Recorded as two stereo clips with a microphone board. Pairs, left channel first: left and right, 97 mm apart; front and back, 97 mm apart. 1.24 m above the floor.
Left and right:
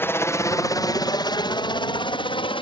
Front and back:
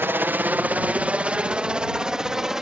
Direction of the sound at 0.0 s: 130° left.